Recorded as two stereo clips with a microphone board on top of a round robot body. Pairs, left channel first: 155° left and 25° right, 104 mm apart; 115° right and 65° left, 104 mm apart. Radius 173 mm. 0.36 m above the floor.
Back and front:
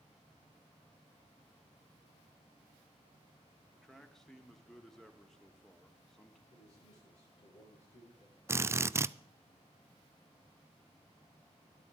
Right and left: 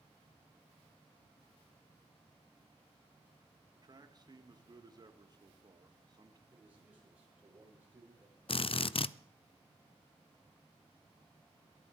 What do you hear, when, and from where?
3.7 s a man speaking: 75° left, 1.7 m
6.5 s a man speaking: 140° left, 8.5 m
8.5 s a drill: 85° right, 0.5 m